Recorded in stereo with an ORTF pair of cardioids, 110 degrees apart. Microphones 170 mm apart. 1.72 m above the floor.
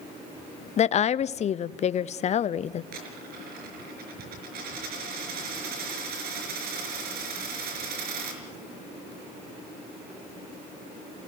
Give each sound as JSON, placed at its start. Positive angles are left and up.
{"t": 0.8, "sound": "a woman speaking", "azimuth_deg": 40, "distance_m": 0.7}
{"t": 2.9, "sound": "a dropped coin", "azimuth_deg": -70, "distance_m": 5.0}